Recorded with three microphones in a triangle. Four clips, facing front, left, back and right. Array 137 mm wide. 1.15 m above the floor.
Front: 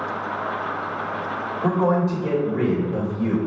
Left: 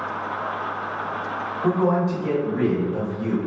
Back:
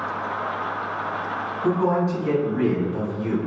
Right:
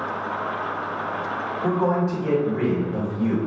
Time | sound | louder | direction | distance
1.6 | a man speaking | left 2 dB, front 1 dB | 10° right | 2 m